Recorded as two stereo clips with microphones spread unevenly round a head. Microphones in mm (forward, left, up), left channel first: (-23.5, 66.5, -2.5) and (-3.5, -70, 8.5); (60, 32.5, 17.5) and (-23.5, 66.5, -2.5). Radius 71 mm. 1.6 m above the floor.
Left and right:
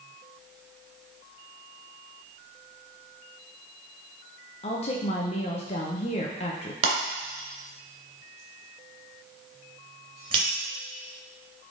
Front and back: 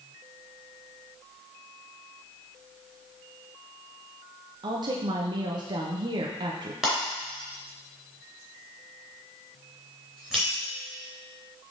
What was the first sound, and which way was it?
A woman speaking, 130° left.